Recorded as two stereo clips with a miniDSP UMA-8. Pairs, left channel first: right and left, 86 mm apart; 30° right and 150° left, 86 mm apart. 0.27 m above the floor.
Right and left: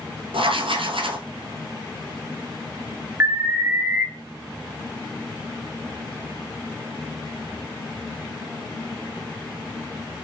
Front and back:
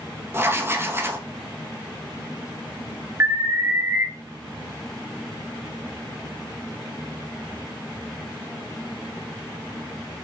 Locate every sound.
0.3 s writing: 90° left, 0.8 m
3.2 s an alarm: 130° left, 0.9 m